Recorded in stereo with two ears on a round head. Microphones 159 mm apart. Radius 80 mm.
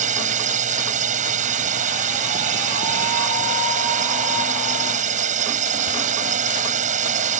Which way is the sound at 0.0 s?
45° right (ahead or behind).